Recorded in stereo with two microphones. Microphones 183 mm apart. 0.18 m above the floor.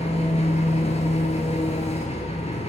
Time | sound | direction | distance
0.0 | an engine running | 40° left (ahead or behind) | 1.0 m